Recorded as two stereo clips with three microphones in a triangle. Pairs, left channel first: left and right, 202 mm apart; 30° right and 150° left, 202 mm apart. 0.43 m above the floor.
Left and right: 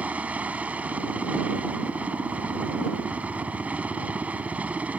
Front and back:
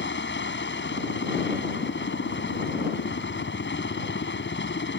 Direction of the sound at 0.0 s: 5° right.